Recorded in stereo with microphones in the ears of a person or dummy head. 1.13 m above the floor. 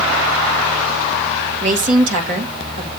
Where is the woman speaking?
45° right (ahead or behind), 2 m.